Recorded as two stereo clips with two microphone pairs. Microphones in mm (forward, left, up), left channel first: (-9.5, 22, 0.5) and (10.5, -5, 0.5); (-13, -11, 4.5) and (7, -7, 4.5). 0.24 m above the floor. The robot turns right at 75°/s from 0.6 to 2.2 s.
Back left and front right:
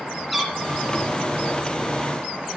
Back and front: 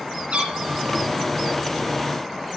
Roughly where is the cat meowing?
Ahead left.